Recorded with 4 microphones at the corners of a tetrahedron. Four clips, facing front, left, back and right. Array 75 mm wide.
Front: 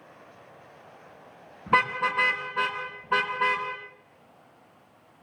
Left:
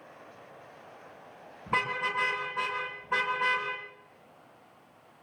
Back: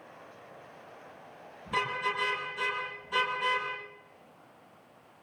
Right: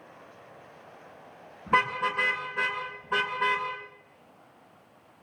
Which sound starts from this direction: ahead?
A car horn, at 1.7 s.